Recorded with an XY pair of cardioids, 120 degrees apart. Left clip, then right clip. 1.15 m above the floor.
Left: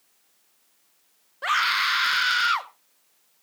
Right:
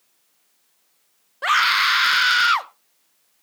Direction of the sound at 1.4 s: 30° right.